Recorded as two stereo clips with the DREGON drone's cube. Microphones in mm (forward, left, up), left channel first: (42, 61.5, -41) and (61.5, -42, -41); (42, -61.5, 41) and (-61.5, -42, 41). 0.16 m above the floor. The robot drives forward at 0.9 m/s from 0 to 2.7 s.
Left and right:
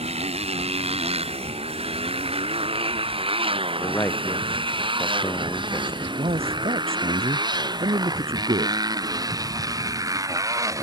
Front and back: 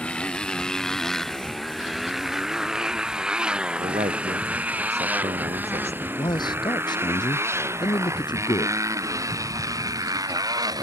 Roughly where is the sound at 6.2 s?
Ahead right.